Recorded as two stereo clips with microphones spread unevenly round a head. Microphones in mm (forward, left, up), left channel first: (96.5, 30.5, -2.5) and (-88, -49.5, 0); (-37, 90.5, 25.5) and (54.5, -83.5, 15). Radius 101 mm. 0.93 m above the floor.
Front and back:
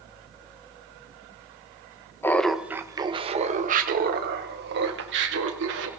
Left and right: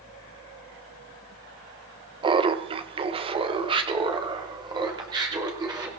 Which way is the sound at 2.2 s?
40° right.